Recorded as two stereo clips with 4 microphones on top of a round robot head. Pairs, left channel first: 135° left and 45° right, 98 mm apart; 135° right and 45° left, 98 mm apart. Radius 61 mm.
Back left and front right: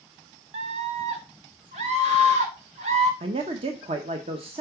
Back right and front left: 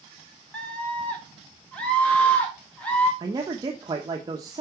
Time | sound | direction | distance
0.5 | a scream | 60° right | 1.7 m
3.2 | a man speaking | 10° right | 0.9 m